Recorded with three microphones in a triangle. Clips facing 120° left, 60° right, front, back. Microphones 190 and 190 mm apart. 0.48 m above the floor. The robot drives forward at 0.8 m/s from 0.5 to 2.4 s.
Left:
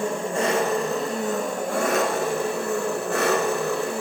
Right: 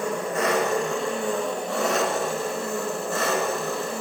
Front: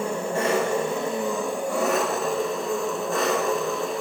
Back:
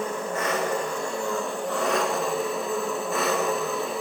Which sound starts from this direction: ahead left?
An engine running, at 0.0 s.